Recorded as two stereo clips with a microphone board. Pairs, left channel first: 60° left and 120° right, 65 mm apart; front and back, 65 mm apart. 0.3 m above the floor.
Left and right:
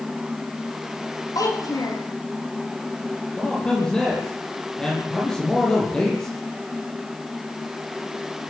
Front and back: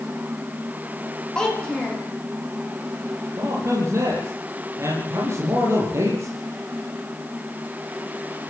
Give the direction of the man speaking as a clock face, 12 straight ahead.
7 o'clock.